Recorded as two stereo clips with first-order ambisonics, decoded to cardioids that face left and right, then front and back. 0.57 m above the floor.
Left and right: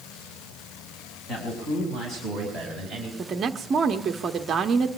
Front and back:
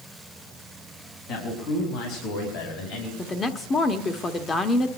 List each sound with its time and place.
1.3 s a man speaking: 30° left, 4.5 m; by 3.1 s 5° left, 4 m
3.2 s a woman speaking: 50° right, 0.9 m